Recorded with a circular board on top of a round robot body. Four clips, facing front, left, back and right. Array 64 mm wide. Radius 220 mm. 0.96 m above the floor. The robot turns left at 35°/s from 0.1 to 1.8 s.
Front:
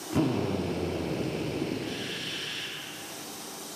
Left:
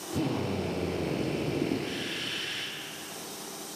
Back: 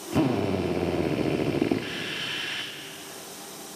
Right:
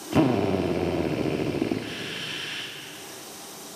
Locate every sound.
0.1 s a drill: 100° right, 0.6 m; by 2.7 s 160° right, 0.6 m